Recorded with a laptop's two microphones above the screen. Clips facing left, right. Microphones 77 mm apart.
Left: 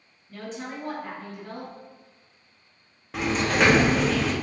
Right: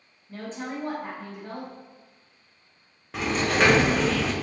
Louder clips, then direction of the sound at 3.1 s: Even; centre (ahead or behind).